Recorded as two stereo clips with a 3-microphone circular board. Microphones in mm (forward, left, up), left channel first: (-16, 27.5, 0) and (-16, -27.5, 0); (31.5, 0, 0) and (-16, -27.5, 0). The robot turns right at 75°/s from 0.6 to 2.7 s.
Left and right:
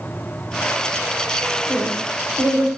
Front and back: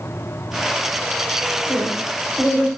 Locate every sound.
1.7 s a woman speaking: 15° left, 1.2 m; by 2.7 s 90° left, 1.2 m